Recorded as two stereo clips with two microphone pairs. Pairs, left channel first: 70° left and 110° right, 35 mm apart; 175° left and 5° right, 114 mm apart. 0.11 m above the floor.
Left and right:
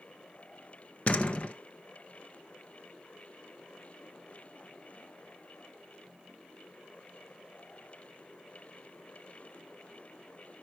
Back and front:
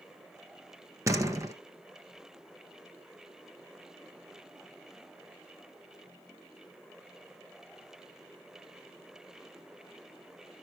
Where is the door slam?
50° left, 1.4 m.